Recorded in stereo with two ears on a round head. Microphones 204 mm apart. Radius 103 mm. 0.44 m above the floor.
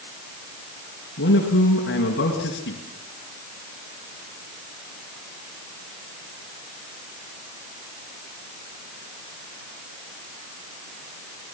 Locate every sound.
1.2 s a man speaking: 50° left (ahead or behind), 4 m